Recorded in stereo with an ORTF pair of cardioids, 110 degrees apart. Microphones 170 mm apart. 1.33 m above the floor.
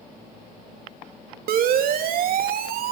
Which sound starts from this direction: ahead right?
A siren, at 1.5 s.